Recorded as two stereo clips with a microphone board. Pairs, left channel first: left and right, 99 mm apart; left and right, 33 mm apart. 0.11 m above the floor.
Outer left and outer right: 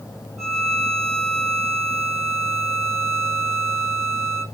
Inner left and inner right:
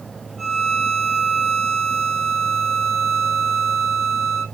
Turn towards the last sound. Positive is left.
turn(degrees=0)  # may be behind; listen again after turning